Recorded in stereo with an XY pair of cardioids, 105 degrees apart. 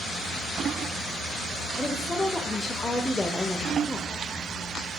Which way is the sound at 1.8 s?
15° left.